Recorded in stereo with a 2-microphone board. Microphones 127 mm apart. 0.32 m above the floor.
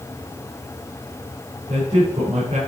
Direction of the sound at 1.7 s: 50° right (ahead or behind).